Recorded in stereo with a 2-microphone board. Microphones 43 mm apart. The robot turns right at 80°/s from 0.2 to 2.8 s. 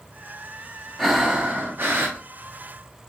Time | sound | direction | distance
1.0 | breathing | 175° left | 1.1 m